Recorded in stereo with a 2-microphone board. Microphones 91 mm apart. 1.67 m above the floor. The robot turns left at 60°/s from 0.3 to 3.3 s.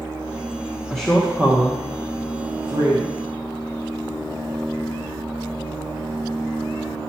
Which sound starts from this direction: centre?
A woman speaking, at 0.9 s.